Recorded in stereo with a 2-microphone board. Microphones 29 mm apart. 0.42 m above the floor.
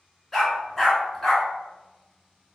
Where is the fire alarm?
No fire alarm in this recording.